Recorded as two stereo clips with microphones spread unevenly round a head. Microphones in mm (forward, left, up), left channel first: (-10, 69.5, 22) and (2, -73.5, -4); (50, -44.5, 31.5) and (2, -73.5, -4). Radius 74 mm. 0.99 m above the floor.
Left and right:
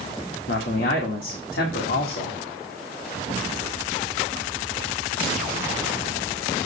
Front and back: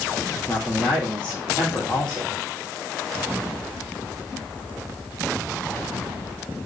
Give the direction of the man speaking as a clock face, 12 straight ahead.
8 o'clock.